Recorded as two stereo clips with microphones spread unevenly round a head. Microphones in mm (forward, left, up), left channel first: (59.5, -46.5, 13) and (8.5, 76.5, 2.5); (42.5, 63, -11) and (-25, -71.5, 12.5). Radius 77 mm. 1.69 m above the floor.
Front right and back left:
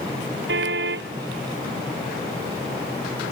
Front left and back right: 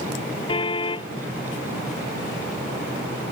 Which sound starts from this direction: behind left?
A car horn, at 0.5 s.